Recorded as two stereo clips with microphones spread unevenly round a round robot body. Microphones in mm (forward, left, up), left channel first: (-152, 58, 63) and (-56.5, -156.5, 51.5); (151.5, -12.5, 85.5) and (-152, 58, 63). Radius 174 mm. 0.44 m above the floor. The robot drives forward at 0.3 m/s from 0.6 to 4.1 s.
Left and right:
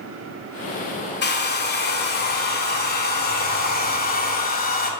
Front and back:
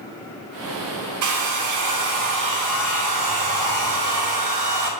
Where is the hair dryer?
155° left, 2.0 m; by 4.9 s 165° left, 2.5 m.